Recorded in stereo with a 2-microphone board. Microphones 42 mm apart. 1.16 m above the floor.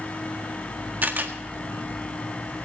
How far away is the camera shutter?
About 1.6 m.